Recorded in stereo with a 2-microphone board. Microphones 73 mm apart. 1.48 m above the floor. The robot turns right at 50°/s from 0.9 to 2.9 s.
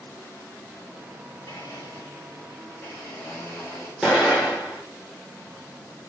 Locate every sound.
1.5 s a blender: 75° left, 2 m; by 3.9 s 150° left, 2 m
4.0 s an explosion: centre (ahead or behind), 2.5 m